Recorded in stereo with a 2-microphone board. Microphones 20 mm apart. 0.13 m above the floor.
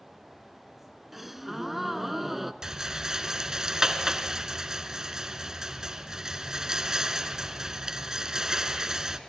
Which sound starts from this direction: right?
A rattle, at 2.6 s.